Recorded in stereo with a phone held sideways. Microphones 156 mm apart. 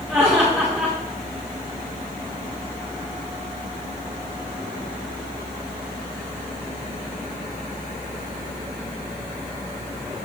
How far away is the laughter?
About 2.5 m.